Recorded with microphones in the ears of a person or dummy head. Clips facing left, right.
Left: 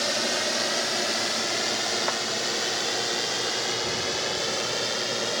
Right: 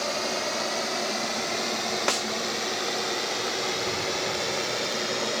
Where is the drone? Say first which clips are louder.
Even; 15° left (ahead or behind); by 5.4 s 5° left (ahead or behind).